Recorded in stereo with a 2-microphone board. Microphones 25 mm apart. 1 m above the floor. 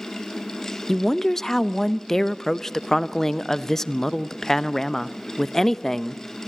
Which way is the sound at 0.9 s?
15° left (ahead or behind).